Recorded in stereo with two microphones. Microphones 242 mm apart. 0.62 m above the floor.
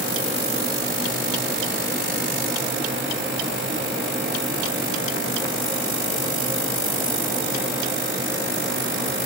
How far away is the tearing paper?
No tearing paper in this recording.